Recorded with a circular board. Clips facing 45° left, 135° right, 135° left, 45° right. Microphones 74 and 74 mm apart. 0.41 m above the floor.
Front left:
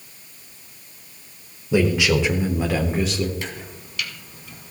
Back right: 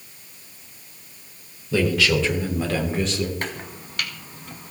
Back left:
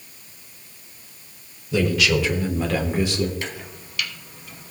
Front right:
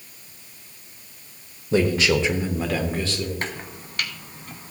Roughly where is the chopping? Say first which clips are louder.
Back right 2 dB, front right 2 dB; right.